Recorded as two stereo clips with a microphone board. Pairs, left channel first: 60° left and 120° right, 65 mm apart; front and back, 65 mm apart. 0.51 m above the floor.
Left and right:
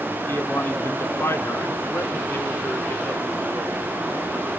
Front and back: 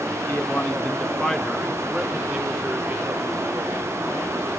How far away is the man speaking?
About 1.2 m.